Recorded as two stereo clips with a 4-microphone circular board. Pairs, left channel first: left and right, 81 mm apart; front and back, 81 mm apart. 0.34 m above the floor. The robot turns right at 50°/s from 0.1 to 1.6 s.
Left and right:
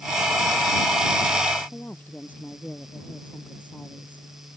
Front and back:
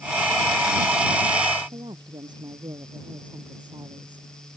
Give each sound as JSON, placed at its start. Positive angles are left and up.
{"t": 1.7, "sound": "a woman speaking", "azimuth_deg": 160}